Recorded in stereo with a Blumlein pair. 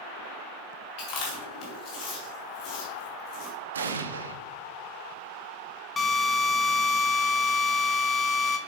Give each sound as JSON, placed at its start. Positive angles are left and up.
{"t": 1.0, "sound": "chewing", "azimuth_deg": 40, "distance_m": 2.5}
{"t": 3.7, "sound": "an explosion", "azimuth_deg": -70, "distance_m": 0.6}
{"t": 6.0, "sound": "a drill", "azimuth_deg": 15, "distance_m": 1.1}